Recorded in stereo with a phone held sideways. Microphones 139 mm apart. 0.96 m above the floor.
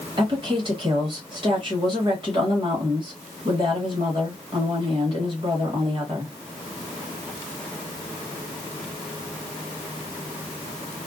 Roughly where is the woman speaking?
Right.